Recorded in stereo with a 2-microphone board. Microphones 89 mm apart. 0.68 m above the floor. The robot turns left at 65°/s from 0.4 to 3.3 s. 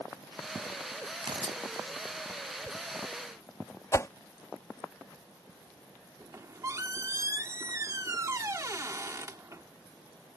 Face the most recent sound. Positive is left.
turn(degrees=-35)  # may be behind; listen again after turning